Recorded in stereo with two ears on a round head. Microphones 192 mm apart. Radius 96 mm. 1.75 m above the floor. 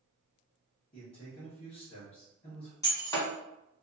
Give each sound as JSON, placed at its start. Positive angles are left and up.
{"t": 0.9, "sound": "a man speaking", "side_deg": 20, "distance_m": 1.4}
{"t": 2.8, "sound": "breaking glass", "side_deg": 15, "distance_m": 1.7}